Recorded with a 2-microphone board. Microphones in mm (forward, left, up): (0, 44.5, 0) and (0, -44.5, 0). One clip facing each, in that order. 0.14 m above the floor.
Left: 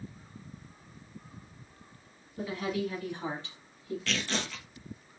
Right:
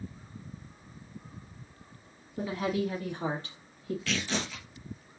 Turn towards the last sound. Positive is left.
turn(degrees=-5)  # may be behind; listen again after turning